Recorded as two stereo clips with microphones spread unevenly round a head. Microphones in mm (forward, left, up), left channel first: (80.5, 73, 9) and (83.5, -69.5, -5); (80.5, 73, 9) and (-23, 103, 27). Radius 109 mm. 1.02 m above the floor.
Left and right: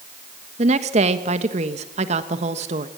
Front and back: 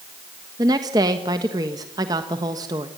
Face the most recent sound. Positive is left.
turn(degrees=-130)